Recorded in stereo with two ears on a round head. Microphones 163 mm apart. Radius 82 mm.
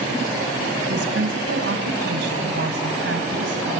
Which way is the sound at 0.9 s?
70° right (ahead or behind).